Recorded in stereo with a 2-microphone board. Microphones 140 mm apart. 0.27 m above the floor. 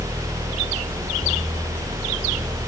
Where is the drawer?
No drawer in this recording.